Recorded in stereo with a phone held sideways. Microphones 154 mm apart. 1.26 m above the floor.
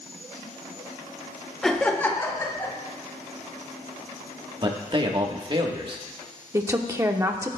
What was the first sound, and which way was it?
Laughter, 5° left (ahead or behind).